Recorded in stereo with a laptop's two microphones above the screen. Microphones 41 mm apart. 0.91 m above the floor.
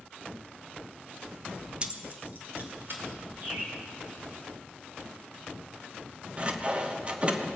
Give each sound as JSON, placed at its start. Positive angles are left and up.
{"t": 1.8, "sound": "keys jangling", "side_deg": -25, "distance_m": 0.6}
{"t": 3.4, "sound": "a bird", "side_deg": -40, "distance_m": 3.0}
{"t": 6.4, "sound": "sawing", "side_deg": -30, "distance_m": 0.8}